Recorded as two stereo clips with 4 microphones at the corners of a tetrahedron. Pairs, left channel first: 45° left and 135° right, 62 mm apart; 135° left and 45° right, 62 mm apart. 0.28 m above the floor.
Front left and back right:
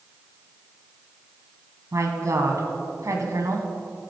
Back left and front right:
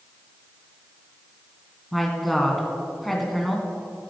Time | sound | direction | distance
1.9 | a woman speaking | 135° right | 2 m